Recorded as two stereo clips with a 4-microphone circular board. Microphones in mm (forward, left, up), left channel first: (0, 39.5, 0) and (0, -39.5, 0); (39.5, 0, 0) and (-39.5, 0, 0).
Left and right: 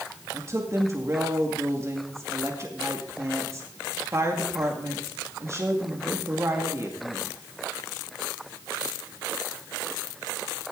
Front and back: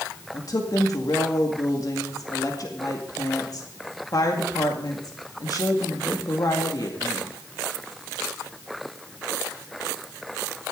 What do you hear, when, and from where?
0.3 s a woman speaking: 40° right, 2 m